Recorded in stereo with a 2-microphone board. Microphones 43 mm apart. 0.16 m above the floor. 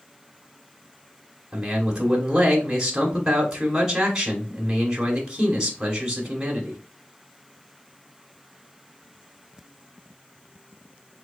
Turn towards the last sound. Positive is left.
turn(degrees=-10)  # may be behind; listen again after turning